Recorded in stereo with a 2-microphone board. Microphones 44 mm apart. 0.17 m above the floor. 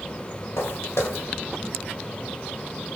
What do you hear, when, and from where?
0.6 s footsteps: 85° left, 2.5 m